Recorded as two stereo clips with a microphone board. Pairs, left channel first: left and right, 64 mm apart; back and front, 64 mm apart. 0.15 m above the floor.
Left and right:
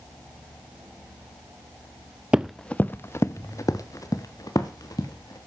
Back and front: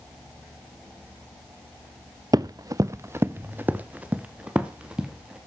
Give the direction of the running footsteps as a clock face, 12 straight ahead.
12 o'clock.